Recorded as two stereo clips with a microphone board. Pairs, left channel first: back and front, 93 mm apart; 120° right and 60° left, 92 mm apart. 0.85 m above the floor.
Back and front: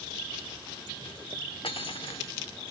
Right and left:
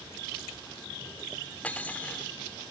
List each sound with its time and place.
1.6 s cutlery clinking: 165° left